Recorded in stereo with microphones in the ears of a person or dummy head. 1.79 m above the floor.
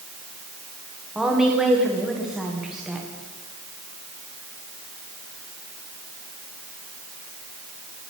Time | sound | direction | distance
1.1 | a woman speaking | 10° right (ahead or behind) | 1.5 m